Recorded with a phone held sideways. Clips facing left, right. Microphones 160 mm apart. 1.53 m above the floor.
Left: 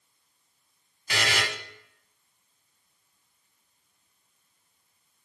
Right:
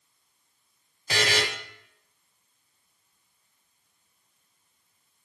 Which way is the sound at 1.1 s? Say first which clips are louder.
Right 3 dB; 35° right (ahead or behind).